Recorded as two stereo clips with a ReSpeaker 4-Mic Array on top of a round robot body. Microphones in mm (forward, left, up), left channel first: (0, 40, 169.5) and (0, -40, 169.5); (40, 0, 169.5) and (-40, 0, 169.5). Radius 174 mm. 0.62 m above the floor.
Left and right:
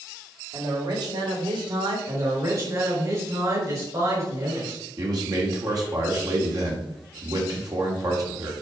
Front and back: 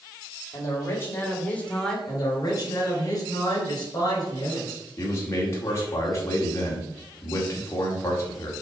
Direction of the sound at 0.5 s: 55° right.